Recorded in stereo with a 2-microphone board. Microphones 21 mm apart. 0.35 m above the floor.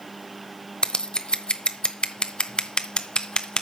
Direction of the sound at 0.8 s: 45° left (ahead or behind).